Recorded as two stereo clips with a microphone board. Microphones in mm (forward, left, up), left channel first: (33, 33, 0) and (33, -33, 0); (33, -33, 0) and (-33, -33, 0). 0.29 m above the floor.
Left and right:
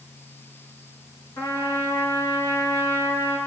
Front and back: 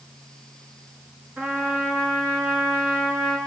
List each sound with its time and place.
1.4 s a trumpet: 110° left, 4 m